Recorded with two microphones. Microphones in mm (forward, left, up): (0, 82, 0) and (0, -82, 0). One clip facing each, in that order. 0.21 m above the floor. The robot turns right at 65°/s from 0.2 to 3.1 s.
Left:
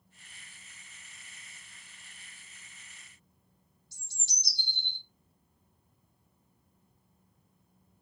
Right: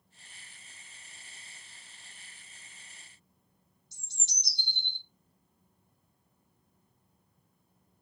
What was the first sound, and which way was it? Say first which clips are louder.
A bird: even; 20° right (ahead or behind).